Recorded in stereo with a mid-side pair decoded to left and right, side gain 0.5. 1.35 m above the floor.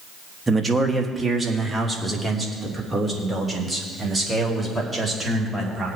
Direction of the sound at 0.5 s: 20° right.